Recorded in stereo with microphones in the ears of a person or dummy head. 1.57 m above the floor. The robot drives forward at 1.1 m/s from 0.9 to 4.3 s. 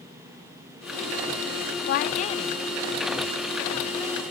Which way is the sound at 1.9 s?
55° left (ahead or behind).